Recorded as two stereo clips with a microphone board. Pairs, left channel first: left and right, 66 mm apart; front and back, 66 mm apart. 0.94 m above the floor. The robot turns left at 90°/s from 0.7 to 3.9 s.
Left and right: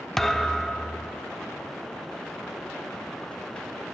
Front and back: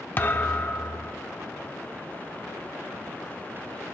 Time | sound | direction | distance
0.2 | a thud | 10° left | 0.5 m